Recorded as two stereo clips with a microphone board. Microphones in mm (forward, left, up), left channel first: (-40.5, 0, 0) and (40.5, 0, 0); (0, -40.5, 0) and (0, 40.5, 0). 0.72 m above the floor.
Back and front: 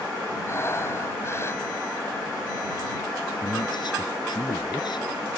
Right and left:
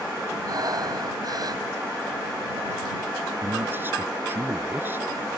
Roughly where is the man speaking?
Behind left.